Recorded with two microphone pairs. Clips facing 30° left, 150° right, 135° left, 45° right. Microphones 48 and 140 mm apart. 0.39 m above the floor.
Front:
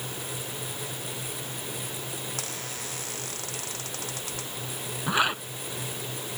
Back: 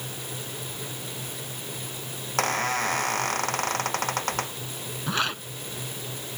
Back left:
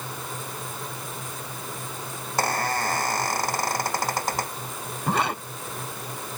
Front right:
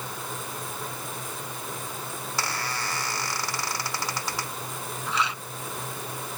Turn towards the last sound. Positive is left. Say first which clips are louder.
# front 3 dB, back left 5 dB
turn(degrees=105)